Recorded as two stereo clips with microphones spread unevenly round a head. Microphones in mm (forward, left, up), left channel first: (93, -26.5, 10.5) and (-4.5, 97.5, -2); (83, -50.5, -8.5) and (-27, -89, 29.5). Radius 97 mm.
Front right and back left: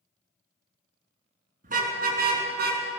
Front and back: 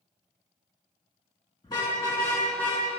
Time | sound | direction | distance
1.6 | a car horn | 90° left | 5.5 m